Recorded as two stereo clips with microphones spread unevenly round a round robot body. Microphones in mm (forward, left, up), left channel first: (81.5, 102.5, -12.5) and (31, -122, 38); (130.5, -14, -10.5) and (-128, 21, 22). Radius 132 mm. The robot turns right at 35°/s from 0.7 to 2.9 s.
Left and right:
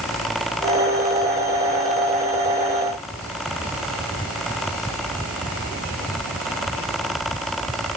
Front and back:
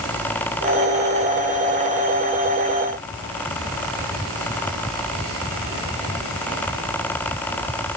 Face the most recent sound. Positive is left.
No sound to turn to.